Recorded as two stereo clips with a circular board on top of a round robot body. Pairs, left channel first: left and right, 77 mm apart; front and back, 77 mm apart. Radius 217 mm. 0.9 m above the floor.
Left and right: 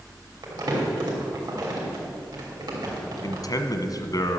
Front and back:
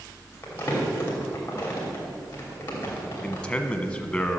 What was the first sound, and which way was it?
Crumpling, 65° right.